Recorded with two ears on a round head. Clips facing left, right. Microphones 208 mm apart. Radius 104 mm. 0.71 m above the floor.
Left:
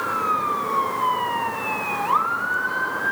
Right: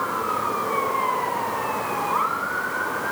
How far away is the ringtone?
No ringtone in this recording.